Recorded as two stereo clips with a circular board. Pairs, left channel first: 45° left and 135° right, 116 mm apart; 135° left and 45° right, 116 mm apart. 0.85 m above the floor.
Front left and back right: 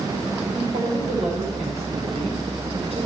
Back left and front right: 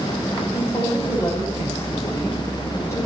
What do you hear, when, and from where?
0.5 s a woman speaking: 155° right, 5.5 m; by 3.1 s 160° right, 3.5 m